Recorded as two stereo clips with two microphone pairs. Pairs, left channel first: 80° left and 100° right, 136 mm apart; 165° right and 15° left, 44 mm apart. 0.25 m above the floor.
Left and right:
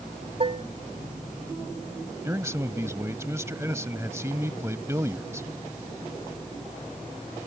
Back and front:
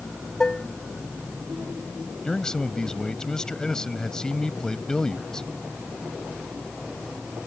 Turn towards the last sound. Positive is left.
turn(degrees=-120)